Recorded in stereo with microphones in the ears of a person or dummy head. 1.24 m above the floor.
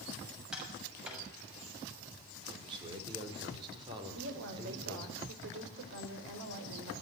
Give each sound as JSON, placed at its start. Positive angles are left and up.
{"t": 0.5, "sound": "tapping", "side_deg": -5, "distance_m": 7.0}
{"t": 2.5, "sound": "a man speaking", "side_deg": -30, "distance_m": 5.0}
{"t": 4.2, "sound": "a woman speaking", "side_deg": -65, "distance_m": 4.0}